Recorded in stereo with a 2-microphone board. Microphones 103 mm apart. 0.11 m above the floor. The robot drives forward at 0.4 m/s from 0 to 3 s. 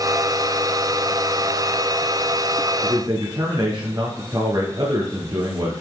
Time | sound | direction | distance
2.8 | a man speaking | 45° right (ahead or behind) | 1.5 m